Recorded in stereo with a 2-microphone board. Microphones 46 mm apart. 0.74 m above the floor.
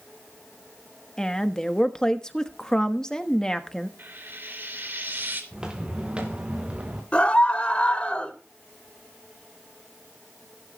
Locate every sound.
1.2 s a woman speaking: 15° left (ahead or behind), 1.1 m
4.0 s frying: 55° right (ahead or behind), 3 m
5.5 s footsteps: 20° right (ahead or behind), 3 m; by 7.0 s 30° right (ahead or behind), 4 m
7.1 s a scream: 30° left (ahead or behind), 3 m